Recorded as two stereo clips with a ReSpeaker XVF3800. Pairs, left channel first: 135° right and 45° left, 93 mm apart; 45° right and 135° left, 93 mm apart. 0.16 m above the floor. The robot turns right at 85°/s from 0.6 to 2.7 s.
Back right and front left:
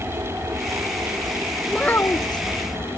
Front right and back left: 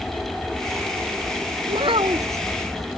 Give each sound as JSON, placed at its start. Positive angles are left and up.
{"t": 0.0, "sound": "an aircraft", "azimuth_deg": 35}
{"t": 1.7, "sound": "a child speaking", "azimuth_deg": 135}